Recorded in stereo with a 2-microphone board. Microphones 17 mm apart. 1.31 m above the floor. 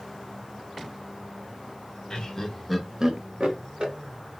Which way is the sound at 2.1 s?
45° left (ahead or behind).